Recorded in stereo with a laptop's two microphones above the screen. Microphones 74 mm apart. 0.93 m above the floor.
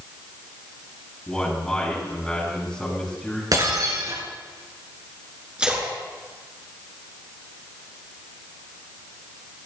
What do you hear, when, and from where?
1.3 s a man speaking: 10° left (ahead or behind), 8.5 m
3.5 s breaking glass: 55° right (ahead or behind), 5.5 m
5.6 s a splash: 15° right (ahead or behind), 4.5 m